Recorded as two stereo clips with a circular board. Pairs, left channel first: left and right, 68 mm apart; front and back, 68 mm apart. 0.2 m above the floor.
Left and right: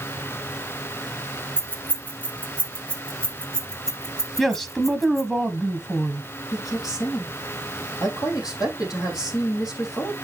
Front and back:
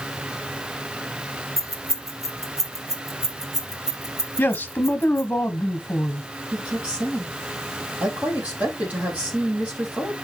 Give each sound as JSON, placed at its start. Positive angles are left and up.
{"t": 1.6, "sound": "keys jangling", "azimuth_deg": 145, "distance_m": 1.8}
{"t": 4.4, "sound": "a man speaking", "azimuth_deg": 15, "distance_m": 1.3}
{"t": 6.5, "sound": "a woman speaking", "azimuth_deg": 110, "distance_m": 7.0}